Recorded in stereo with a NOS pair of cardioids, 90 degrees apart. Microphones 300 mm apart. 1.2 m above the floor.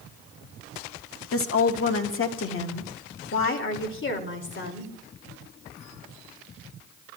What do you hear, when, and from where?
1.3 s a woman speaking: 45° left, 1.8 m; by 4.9 s 40° left, 3.5 m